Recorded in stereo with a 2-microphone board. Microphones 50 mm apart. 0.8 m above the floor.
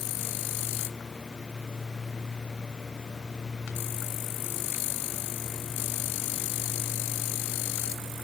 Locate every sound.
Only background noise.